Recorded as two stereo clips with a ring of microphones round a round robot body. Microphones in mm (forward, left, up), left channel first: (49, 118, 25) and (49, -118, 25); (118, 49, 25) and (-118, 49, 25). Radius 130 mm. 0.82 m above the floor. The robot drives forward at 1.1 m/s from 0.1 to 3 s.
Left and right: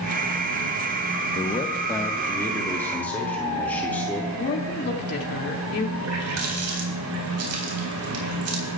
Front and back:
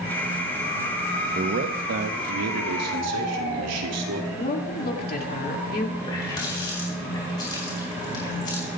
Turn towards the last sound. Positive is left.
turn(degrees=-75)